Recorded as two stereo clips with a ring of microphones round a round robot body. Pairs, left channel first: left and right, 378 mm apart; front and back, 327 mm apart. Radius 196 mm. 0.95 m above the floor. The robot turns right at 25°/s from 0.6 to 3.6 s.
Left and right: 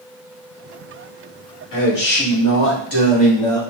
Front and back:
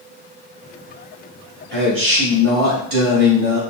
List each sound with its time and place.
1.7 s a man speaking: 125° left, 1.9 m; by 3.6 s 170° left, 1.9 m